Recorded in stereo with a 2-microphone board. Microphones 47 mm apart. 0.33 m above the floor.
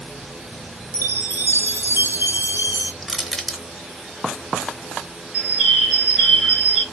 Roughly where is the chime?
Right.